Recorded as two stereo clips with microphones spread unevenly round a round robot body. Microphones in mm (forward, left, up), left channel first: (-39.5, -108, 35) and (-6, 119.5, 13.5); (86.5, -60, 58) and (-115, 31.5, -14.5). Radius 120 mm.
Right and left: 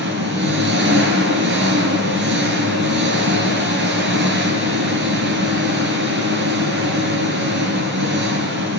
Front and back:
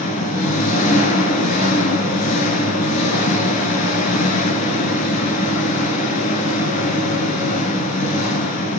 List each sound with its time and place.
0.0 s an engine running: 35° left, 5 m